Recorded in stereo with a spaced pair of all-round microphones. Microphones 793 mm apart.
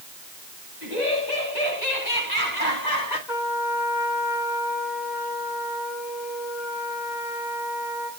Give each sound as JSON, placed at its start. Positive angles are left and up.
{"t": 0.8, "sound": "laughter", "side_deg": 65, "distance_m": 8.0}
{"t": 3.3, "sound": "a trumpet", "side_deg": 65, "distance_m": 8.5}